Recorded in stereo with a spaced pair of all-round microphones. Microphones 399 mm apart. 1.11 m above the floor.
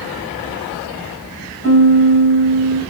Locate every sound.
1.6 s a piano: 35° left (ahead or behind), 1.8 m